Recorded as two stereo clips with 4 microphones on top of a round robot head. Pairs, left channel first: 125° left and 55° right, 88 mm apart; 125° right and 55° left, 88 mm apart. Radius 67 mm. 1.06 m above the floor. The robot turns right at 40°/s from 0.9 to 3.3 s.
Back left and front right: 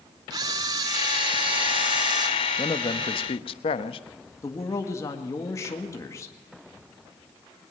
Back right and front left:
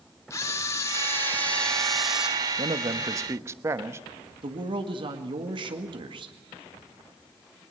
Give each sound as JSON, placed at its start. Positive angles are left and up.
{"t": 0.3, "sound": "a camera shutter", "azimuth_deg": -80, "distance_m": 0.7}
{"t": 2.6, "sound": "a man speaking", "azimuth_deg": 85, "distance_m": 1.1}
{"t": 4.4, "sound": "a man speaking", "azimuth_deg": 70, "distance_m": 1.9}